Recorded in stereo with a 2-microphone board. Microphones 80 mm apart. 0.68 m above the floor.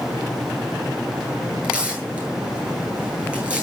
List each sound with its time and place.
1.6 s tearing paper: 10° right (ahead or behind), 9.5 m